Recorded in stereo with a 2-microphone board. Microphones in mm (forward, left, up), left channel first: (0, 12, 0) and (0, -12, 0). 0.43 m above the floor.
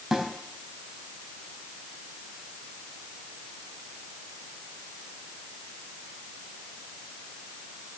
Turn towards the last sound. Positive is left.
turn(degrees=-15)  # may be behind; listen again after turning